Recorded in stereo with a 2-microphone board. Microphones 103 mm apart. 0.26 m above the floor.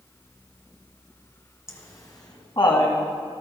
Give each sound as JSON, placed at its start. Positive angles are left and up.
{"t": 1.7, "sound": "laughter", "side_deg": 25, "distance_m": 2.5}